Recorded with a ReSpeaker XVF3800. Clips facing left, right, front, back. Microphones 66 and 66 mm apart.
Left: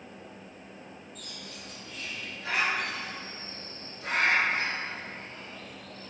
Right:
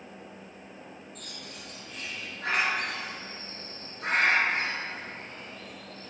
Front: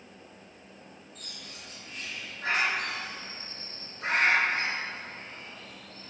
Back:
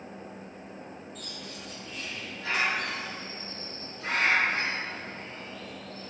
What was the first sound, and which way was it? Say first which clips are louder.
A bird: even, back 5 dB; 55° right.